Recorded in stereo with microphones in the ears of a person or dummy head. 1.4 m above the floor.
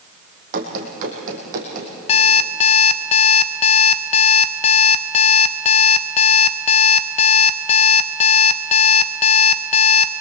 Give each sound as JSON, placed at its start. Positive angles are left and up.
{"t": 0.5, "sound": "running footsteps", "side_deg": -45, "distance_m": 4.0}
{"t": 2.1, "sound": "an alarm clock", "side_deg": 35, "distance_m": 0.8}